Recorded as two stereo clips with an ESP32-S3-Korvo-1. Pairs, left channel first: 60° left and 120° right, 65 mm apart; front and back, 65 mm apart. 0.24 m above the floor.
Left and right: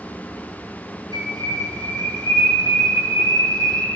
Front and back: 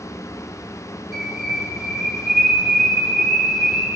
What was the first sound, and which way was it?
A bird, 90° right.